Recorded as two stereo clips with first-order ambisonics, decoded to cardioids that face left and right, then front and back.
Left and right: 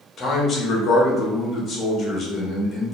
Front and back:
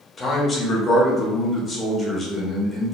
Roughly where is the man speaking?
Ahead left.